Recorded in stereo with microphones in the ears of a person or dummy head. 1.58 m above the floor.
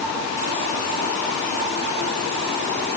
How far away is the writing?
No writing in this recording.